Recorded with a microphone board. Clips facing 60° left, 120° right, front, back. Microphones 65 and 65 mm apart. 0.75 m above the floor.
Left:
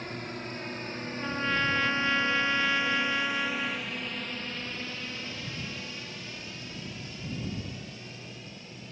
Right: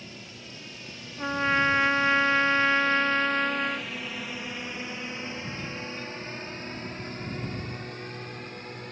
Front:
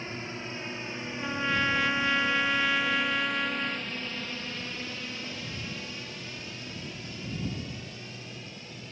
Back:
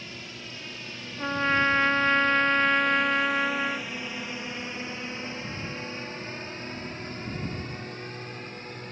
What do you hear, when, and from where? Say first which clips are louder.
0.0 s a drone: left 7 dB, front 4 dB; 50° left; by 8.9 s 145° right
1.2 s a trumpet: right 5 dB, back 5 dB; 150° right